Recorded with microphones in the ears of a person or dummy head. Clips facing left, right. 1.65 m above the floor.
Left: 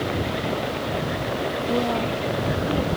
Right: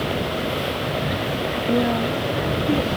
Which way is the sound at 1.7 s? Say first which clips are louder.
Right 4 dB; 20° right (ahead or behind).